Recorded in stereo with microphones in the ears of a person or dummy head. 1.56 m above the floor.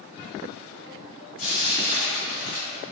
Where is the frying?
50° left (ahead or behind), 1.1 m.